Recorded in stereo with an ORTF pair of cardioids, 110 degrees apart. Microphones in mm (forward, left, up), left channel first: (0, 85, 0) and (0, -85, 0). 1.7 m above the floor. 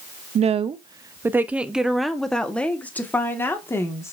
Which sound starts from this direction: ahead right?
A woman speaking, at 0.3 s.